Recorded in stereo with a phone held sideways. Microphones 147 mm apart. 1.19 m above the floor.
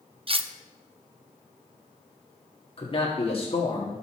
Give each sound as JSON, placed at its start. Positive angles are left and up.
{"t": 0.3, "sound": "cutlery clinking", "side_deg": -40, "distance_m": 0.5}
{"t": 2.8, "sound": "a man speaking", "side_deg": 40, "distance_m": 2.0}